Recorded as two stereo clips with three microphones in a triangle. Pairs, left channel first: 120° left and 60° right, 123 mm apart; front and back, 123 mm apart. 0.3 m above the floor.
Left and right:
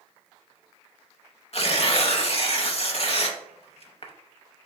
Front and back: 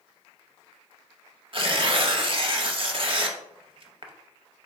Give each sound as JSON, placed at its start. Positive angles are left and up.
{"t": 1.5, "sound": "tearing paper", "azimuth_deg": 140, "distance_m": 0.6}